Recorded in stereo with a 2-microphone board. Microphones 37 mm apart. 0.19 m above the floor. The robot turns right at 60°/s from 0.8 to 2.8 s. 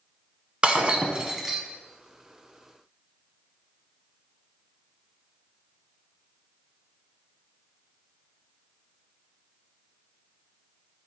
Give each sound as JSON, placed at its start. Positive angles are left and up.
{"t": 0.6, "sound": "breaking glass", "azimuth_deg": -55, "distance_m": 0.8}